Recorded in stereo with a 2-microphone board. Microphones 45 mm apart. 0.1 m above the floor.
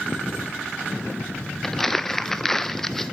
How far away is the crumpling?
About 0.5 m.